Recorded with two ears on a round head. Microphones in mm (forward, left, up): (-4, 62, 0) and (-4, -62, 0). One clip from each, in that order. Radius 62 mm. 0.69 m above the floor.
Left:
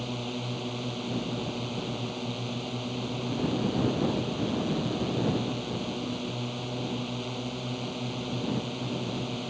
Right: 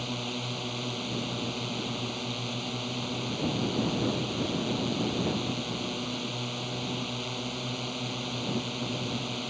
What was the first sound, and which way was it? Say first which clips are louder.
A drone: right 1 dB; 35° right (ahead or behind).